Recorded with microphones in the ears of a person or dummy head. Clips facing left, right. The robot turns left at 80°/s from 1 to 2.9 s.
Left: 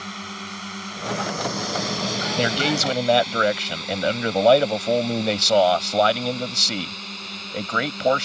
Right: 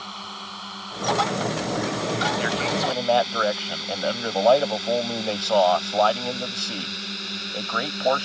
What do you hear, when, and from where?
0.0 s a drone: 25° left (ahead or behind); by 8.3 s 15° right (ahead or behind)
2.4 s a man speaking: 70° left; by 8.3 s 30° left